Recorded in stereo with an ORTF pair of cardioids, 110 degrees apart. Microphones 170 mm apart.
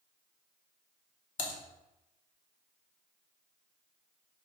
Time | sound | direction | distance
1.4 | typing on a keyboard | 50° left | 1.7 m